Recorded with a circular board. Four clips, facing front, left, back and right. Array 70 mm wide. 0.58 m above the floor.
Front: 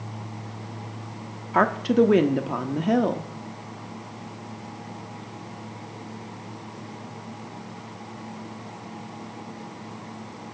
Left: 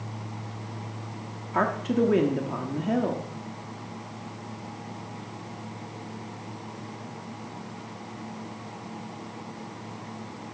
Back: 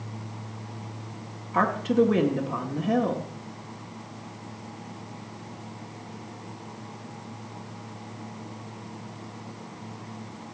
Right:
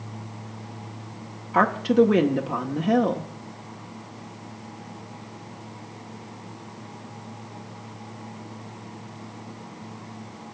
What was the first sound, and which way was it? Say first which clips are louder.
A woman speaking: right 6 dB, front 3 dB; 35° right.